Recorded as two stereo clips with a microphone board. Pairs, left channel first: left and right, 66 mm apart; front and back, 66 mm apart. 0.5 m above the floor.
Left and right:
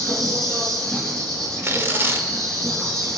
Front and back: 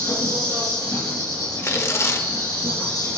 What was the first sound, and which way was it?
An insect, 5° left.